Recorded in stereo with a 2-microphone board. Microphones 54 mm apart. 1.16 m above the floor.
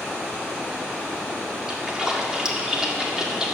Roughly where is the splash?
Centre.